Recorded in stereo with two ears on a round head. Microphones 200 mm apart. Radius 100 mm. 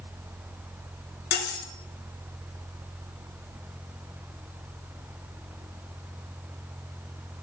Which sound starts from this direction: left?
Cutlery clinking, at 1.3 s.